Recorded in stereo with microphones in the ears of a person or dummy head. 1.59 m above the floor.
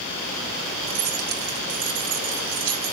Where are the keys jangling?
70° right (ahead or behind), 3.5 m; by 2.9 s 85° right, 4.5 m.